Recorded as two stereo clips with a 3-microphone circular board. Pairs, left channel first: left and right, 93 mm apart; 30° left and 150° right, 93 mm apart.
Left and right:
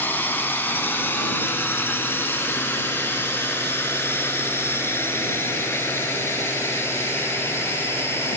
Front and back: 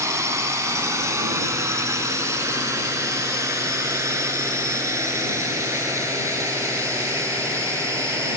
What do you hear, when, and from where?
0.0 s a drone: 160° left; by 8.4 s 155° left